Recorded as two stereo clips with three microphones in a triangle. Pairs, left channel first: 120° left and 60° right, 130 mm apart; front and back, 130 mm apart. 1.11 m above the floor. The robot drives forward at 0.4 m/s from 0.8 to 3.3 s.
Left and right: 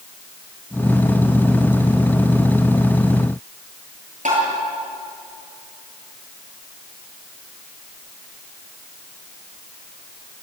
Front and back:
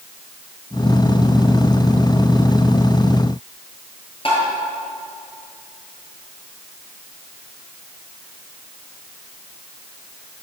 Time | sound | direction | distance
4.2 | tapping | 45° right | 9 m